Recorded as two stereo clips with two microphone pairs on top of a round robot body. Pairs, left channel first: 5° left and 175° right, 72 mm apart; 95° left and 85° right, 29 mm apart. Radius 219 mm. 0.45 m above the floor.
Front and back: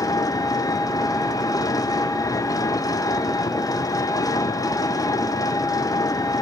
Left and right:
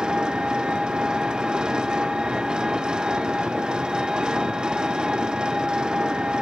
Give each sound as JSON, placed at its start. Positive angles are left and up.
{"t": 0.0, "sound": "an engine running", "azimuth_deg": -25, "distance_m": 2.0}